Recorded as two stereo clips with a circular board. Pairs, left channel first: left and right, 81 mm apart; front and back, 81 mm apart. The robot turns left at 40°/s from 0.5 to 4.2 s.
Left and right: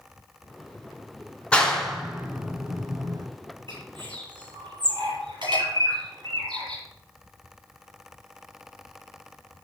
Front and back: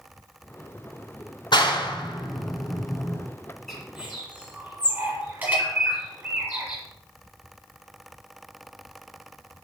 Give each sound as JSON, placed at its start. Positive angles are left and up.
{"t": 1.5, "sound": "a clap", "azimuth_deg": 15, "distance_m": 2.5}
{"t": 3.7, "sound": "a bird", "azimuth_deg": -90, "distance_m": 8.0}